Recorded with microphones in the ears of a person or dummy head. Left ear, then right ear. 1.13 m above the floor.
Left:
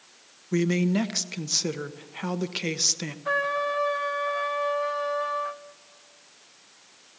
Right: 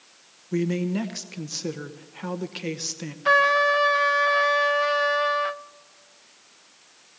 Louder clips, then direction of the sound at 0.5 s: Left 1 dB; 15° left (ahead or behind).